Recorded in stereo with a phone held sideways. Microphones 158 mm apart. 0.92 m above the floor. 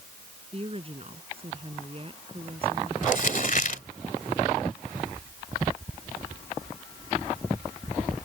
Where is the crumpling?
60° left (ahead or behind).